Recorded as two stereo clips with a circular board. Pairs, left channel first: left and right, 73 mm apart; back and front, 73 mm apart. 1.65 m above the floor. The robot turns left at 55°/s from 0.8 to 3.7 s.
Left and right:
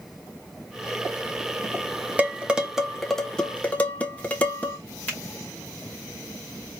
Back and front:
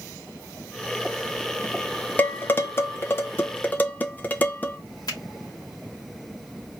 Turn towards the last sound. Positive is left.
turn(degrees=160)